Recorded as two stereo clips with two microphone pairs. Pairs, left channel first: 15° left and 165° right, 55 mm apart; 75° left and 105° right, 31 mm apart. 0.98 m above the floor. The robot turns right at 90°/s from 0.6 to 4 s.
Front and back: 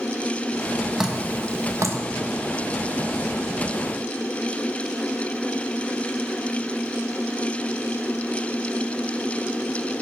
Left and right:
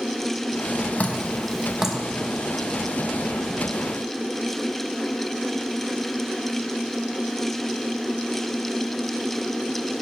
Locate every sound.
1.0 s dripping: 110° left, 0.9 m; by 2.0 s 155° right, 0.9 m